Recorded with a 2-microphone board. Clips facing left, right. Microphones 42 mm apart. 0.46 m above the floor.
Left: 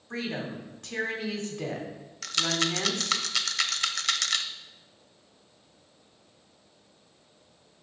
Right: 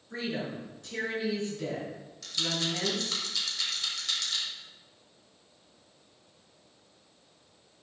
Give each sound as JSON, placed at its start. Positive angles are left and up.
{"t": 0.1, "sound": "a woman speaking", "side_deg": 60, "distance_m": 3.0}
{"t": 2.2, "sound": "a rattle", "side_deg": 75, "distance_m": 0.6}